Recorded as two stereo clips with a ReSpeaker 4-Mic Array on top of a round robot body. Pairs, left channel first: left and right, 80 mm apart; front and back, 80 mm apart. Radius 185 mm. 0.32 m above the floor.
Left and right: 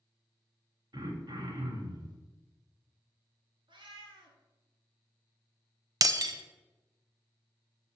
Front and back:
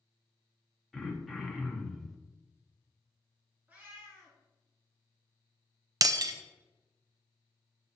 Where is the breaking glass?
135° right, 0.5 m.